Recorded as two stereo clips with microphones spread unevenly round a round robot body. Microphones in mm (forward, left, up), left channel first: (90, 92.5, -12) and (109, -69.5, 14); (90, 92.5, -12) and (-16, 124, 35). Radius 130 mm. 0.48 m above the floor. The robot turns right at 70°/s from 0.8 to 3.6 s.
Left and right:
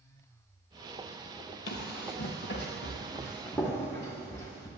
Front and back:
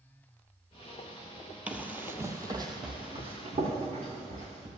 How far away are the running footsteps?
About 0.7 m.